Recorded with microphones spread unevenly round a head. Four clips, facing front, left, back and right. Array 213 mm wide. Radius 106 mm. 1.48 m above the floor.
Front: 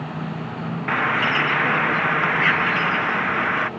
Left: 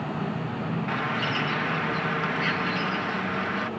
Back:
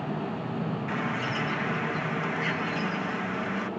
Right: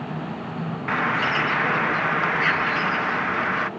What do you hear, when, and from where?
0.9 s a bird: 30° right